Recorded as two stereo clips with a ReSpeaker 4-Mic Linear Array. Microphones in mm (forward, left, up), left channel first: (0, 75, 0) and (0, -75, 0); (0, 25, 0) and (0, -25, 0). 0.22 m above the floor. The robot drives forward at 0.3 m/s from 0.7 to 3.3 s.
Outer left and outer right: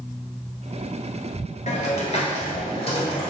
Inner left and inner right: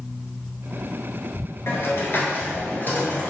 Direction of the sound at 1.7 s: 55° left (ahead or behind).